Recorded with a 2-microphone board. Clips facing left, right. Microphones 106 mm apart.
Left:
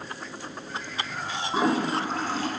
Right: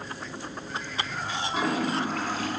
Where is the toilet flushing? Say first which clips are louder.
Left 3 dB; 35° left (ahead or behind), 0.6 m.